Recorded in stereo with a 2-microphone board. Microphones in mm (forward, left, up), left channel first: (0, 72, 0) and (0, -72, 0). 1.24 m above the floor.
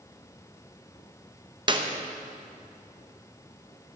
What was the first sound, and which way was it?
A clap, 30° right (ahead or behind).